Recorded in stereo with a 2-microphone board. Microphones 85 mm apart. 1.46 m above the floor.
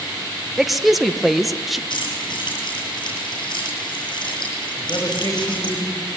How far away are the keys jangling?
About 8.5 m.